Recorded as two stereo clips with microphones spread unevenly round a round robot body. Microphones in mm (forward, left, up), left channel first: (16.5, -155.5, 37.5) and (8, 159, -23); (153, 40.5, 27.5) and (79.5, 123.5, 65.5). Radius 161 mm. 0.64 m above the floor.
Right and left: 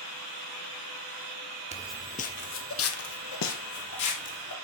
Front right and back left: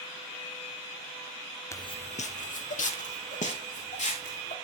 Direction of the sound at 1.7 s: 30° left.